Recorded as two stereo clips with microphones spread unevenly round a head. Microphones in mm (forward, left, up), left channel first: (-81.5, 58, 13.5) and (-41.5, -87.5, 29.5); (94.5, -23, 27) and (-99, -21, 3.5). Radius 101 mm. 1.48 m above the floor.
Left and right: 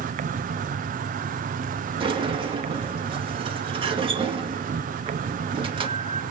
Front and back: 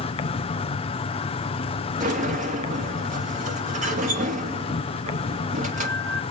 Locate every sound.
0.0 s an insect: 60° right, 0.7 m
2.0 s a sliding door: 130° right, 2.5 m